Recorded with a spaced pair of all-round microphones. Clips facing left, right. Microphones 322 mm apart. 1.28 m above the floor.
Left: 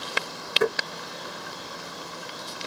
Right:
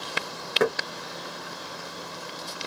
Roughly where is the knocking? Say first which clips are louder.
Right 1 dB; right.